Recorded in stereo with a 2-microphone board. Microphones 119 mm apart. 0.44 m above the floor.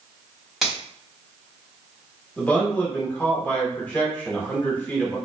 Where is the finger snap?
Centre (ahead or behind), 1.5 m.